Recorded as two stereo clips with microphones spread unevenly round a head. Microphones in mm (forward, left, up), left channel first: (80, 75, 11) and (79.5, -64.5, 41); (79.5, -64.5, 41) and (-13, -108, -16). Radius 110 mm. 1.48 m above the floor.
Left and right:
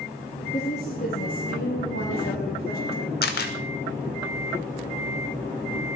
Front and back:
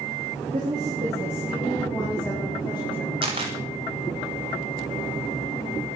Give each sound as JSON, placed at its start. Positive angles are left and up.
{"t": 0.5, "sound": "a woman speaking", "azimuth_deg": 150, "distance_m": 3.0}
{"t": 3.2, "sound": "a camera shutter", "azimuth_deg": 135, "distance_m": 1.1}